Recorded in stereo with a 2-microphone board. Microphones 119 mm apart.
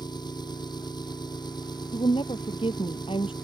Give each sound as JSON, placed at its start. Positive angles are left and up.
{"t": 0.0, "sound": "an engine running", "side_deg": 35}
{"t": 1.9, "sound": "a woman speaking", "side_deg": 50}